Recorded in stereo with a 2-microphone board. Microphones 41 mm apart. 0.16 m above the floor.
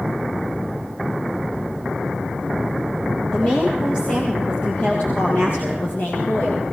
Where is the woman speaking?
30° left (ahead or behind), 4.5 m; by 6.6 s 60° left (ahead or behind), 4.5 m.